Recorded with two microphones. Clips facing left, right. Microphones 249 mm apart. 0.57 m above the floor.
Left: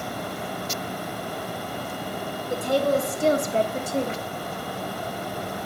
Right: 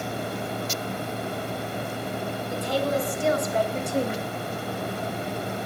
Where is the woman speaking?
55° left (ahead or behind), 2 m; by 4.2 s 20° right (ahead or behind), 1.0 m.